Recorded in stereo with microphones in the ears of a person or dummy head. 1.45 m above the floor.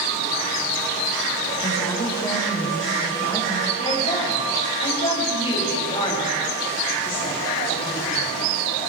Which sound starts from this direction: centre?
A woman speaking, at 1.6 s.